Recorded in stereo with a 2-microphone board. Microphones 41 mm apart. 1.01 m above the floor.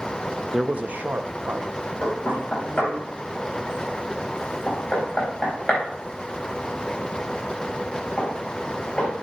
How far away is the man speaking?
About 0.6 m.